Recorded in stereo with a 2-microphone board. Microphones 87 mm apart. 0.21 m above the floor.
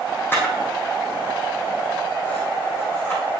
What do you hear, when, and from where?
0.3 s a camera shutter: 25° left (ahead or behind), 4.5 m